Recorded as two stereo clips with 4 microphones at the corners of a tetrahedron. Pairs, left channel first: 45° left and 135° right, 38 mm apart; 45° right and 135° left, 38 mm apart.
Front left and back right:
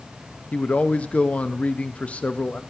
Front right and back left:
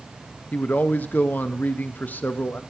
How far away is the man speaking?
About 0.5 m.